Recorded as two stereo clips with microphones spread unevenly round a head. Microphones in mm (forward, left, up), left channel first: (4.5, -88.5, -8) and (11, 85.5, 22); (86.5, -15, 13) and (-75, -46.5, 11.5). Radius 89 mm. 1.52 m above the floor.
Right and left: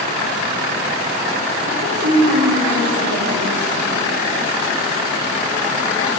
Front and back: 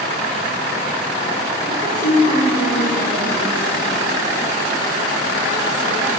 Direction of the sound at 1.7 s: 65° left.